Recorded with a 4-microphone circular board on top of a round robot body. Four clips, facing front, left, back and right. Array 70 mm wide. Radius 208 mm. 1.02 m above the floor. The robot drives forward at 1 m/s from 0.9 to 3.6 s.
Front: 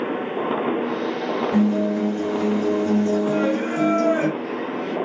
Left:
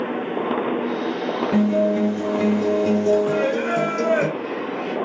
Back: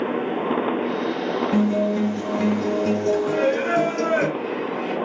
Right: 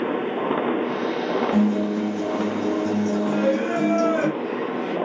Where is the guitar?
100° left, 4.5 m; by 4.3 s 125° left, 5 m.